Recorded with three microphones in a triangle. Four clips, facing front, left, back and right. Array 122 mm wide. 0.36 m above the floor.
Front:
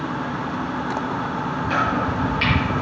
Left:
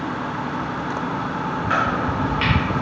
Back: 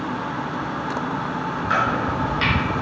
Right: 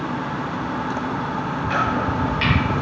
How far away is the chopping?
About 3.5 m.